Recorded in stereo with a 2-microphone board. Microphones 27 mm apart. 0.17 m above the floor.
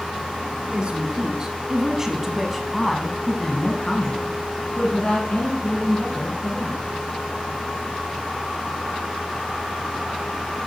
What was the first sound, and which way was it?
A woman speaking, 40° right (ahead or behind).